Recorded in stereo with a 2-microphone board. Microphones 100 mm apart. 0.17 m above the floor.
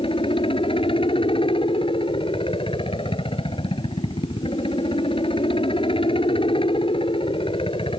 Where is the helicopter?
60° left (ahead or behind).